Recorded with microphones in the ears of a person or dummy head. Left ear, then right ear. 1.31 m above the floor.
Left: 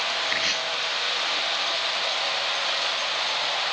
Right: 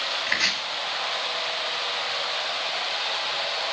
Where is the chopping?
55° right (ahead or behind), 2.5 m.